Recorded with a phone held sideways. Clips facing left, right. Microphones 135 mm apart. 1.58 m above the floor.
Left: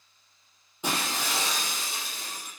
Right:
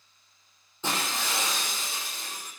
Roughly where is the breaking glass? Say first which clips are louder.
Left 1 dB; centre.